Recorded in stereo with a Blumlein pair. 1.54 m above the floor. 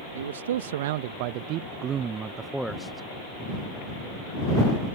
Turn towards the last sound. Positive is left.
turn(degrees=10)